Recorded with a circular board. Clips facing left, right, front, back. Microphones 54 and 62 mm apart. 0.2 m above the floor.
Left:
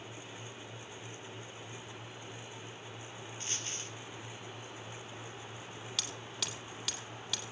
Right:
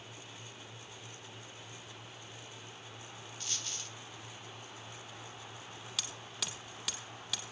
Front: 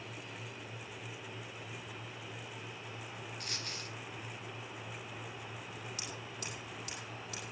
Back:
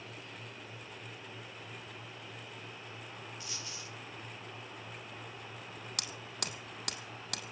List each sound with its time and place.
3.4 s a dropped coin: 30° left, 2.5 m
6.0 s hammering: 175° right, 3 m